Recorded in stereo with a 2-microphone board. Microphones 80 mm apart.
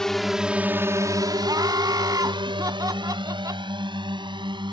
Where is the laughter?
50° right (ahead or behind).